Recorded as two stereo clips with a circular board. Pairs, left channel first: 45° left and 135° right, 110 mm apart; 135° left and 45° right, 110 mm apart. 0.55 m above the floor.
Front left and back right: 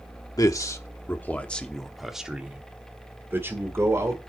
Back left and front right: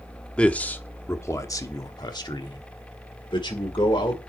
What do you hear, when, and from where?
0.4 s a man speaking: 60° left, 1.1 m; by 4.2 s 165° left, 1.9 m